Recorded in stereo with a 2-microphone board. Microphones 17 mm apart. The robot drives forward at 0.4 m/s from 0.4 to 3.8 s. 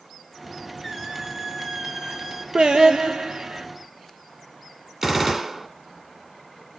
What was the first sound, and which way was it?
A squeak, 20° right (ahead or behind).